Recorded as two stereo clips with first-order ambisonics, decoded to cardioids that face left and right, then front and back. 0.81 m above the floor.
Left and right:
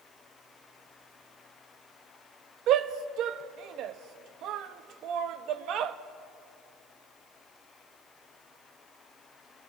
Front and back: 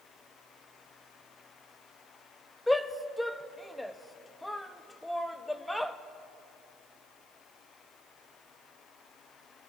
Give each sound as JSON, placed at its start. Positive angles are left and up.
{"t": 2.7, "sound": "a shout", "azimuth_deg": -85, "distance_m": 0.7}